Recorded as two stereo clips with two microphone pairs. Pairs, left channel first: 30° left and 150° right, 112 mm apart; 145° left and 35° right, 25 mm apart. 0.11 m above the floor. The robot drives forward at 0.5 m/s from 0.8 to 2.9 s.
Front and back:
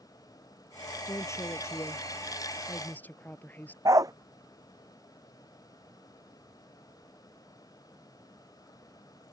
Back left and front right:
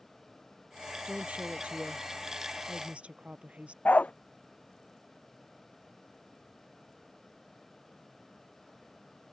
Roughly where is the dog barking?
Behind left.